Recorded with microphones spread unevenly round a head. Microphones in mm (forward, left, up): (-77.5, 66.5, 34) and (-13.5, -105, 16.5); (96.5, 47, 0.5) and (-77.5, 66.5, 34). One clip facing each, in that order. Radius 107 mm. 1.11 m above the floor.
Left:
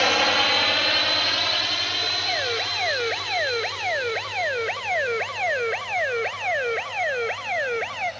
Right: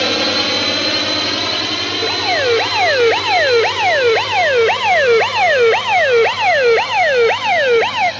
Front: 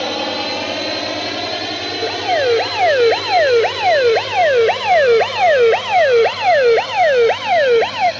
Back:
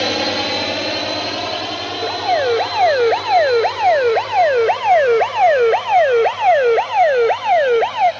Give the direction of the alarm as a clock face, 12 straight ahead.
3 o'clock.